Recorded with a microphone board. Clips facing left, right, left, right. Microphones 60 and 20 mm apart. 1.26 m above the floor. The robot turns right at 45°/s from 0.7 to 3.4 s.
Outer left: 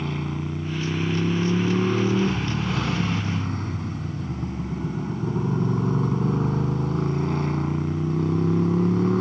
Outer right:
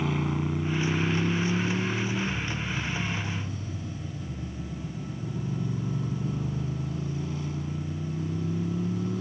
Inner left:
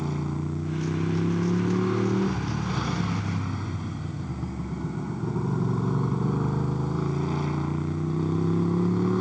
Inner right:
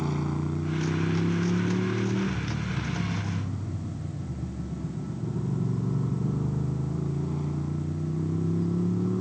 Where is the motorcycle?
5° right; by 9.2 s 115° left.